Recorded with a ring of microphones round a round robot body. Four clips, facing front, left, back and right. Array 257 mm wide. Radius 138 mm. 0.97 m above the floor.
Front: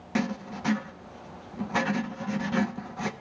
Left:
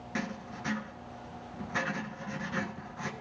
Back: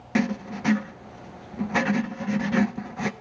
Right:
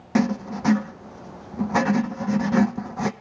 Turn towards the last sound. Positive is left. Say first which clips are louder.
# right 15 dB, back 4 dB
turn(degrees=-110)